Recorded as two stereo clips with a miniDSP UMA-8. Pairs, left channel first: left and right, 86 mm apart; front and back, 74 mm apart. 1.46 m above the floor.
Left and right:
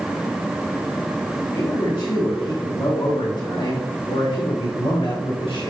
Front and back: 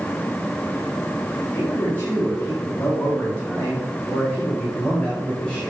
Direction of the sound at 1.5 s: 60° left.